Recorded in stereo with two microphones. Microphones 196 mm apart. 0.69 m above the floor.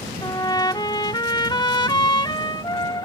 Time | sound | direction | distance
0.2 | a trumpet | 25° left (ahead or behind) | ?